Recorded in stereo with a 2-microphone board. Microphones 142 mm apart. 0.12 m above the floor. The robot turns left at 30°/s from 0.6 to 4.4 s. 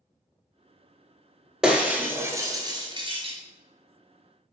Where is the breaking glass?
5° right (ahead or behind), 0.7 m; by 3.4 s 45° right (ahead or behind), 0.7 m.